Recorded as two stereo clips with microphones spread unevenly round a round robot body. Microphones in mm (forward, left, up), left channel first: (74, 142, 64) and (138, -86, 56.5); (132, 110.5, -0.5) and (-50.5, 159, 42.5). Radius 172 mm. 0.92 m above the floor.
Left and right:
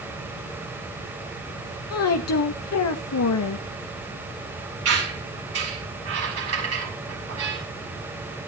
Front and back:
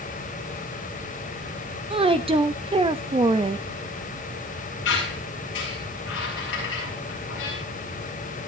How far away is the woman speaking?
About 1.0 m.